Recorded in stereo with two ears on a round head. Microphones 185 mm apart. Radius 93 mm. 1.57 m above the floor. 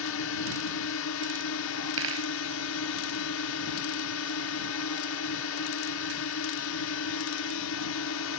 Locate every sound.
0.0 s a drone: 75° left (ahead or behind)
2.0 s a dropped coin: 70° right (ahead or behind)